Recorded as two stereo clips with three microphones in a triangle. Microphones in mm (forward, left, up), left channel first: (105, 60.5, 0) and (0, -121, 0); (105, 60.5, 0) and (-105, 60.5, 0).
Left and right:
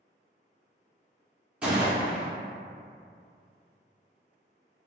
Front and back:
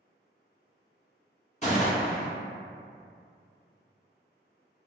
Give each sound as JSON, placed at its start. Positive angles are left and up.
{"t": 1.6, "sound": "a gunshot", "azimuth_deg": -35, "distance_m": 1.5}